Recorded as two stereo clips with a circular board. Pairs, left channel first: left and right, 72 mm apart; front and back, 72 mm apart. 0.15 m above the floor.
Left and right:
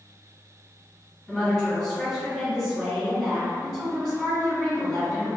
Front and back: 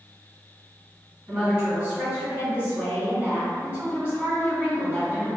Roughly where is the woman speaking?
Behind.